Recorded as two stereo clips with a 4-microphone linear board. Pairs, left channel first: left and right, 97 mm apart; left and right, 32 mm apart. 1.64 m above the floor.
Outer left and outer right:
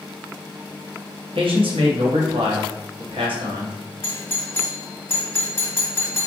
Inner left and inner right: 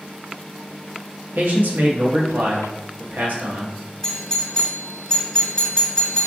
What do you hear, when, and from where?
1.4 s a man speaking: 70° right (ahead or behind), 0.8 m
4.0 s a doorbell: 25° left (ahead or behind), 0.8 m